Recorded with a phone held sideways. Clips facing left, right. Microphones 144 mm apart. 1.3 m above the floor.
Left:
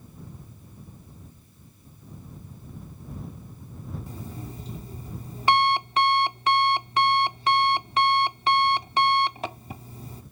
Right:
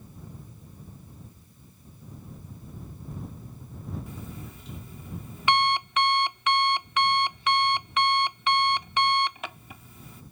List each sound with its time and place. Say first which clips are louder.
4.1 s an alarm clock: left 2 dB; 35° left (ahead or behind)